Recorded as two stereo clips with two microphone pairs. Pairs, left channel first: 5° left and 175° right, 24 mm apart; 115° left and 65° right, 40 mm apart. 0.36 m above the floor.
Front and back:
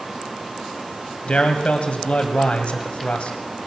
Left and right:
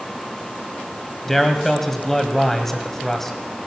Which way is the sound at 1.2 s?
30° left.